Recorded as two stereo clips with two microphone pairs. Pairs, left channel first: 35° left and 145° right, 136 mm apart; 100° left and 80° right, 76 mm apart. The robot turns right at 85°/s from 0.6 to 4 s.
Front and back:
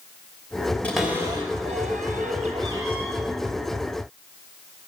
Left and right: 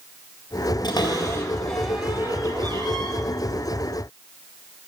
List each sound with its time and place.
0.8 s a cupboard door: 110° left, 3 m; by 3.1 s 55° right, 3 m